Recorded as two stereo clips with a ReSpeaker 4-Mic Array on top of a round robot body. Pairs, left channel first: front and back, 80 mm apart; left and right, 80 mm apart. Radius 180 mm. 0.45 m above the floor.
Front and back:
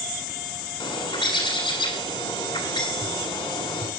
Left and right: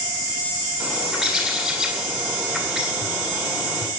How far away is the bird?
About 8 m.